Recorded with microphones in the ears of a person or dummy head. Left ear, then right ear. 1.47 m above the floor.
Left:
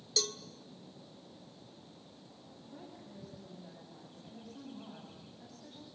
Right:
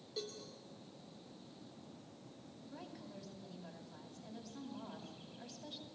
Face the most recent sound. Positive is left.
turn(degrees=-55)  # may be behind; listen again after turning